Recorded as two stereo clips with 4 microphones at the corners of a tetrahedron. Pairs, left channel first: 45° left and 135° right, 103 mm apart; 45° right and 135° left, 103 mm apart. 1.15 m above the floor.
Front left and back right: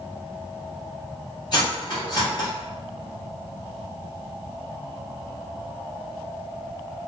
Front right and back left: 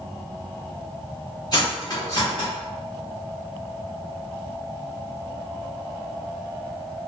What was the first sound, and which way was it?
Cutlery clinking, 5° left.